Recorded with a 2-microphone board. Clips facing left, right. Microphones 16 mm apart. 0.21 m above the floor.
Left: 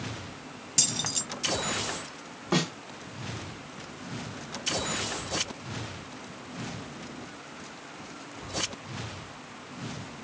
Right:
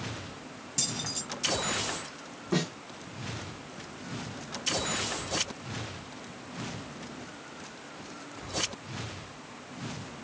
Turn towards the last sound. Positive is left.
turn(degrees=40)  # may be behind; listen again after turning